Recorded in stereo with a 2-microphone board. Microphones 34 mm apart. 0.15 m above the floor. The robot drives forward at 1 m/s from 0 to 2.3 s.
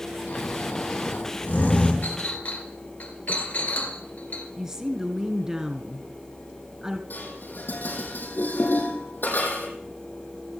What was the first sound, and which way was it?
Snoring, 75° left (ahead or behind).